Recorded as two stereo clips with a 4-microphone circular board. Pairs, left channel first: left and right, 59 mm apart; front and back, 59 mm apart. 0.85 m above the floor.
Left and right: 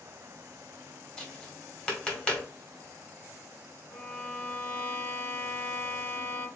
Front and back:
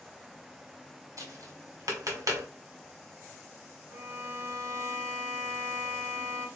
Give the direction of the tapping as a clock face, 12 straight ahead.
7 o'clock.